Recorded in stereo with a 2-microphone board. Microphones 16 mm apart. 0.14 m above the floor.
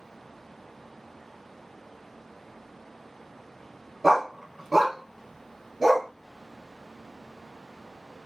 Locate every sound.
4.0 s a dog barking: 15° right (ahead or behind), 0.5 m; by 6.1 s 5° right (ahead or behind), 1.0 m